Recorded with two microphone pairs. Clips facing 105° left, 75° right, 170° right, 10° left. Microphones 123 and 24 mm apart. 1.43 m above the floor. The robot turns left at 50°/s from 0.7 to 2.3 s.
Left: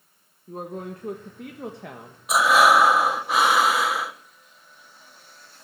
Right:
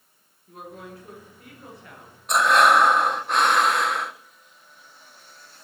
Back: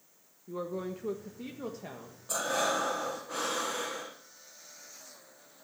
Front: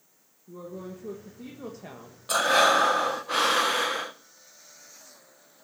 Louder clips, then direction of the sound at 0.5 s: Left 7 dB, back 3 dB; 155° left.